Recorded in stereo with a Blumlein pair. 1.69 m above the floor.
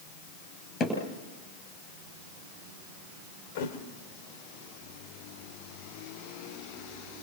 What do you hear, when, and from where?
0.8 s hammering: 25° left, 10 m
3.5 s a thud: 50° left, 3.5 m